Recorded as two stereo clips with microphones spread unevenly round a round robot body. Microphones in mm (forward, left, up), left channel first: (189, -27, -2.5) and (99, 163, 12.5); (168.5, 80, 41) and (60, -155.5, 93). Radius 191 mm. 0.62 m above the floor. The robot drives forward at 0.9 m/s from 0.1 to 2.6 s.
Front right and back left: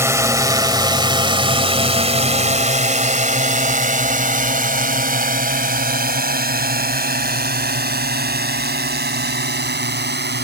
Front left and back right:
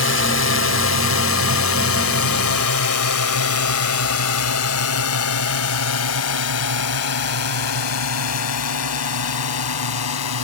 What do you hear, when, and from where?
0.0 s a drone: 40° left; by 10.4 s 80° left